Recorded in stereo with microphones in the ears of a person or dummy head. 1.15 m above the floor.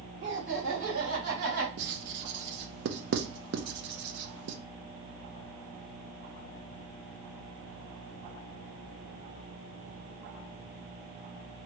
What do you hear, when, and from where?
0.2 s laughter: 60° right (ahead or behind), 2 m; by 1.7 s 80° right, 2.5 m
1.8 s writing: 50° right (ahead or behind), 0.5 m